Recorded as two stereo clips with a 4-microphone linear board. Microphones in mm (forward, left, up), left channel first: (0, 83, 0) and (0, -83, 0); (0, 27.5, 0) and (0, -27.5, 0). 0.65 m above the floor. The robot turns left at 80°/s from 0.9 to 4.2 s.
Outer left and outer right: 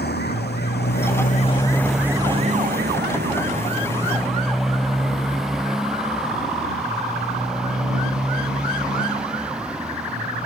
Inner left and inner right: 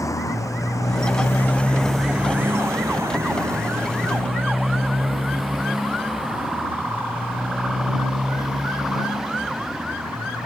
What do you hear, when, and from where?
0.0 s a motorcycle: 80° left; by 10.4 s 5° right (ahead or behind)